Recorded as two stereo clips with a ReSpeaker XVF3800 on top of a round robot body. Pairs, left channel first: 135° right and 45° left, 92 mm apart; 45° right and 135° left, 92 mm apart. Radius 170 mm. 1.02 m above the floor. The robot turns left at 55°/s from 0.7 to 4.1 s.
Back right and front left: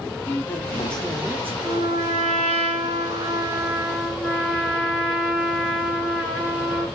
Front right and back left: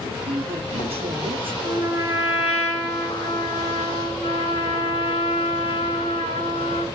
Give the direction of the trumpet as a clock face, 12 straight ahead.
9 o'clock.